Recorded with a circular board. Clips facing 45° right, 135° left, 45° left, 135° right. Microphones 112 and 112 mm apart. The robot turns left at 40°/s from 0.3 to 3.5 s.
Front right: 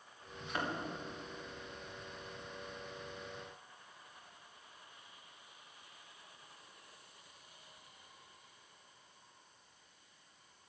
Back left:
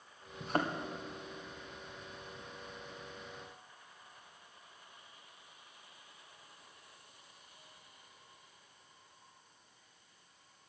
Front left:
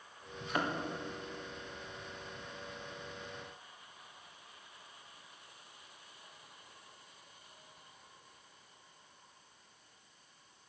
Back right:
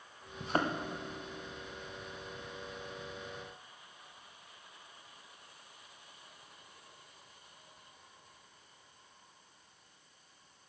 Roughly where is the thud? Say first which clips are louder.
Back left 5 dB, back right 3 dB; behind.